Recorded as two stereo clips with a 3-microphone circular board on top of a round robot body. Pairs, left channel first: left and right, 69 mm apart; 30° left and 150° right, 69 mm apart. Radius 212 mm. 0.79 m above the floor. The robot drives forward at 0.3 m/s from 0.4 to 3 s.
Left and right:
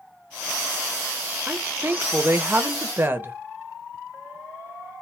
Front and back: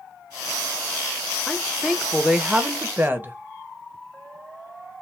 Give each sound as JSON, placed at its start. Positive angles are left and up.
{"t": 1.5, "sound": "a woman speaking", "azimuth_deg": -50, "distance_m": 0.9}